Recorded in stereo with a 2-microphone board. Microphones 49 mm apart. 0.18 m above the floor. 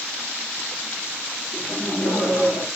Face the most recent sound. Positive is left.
turn(degrees=65)  # may be behind; listen again after turning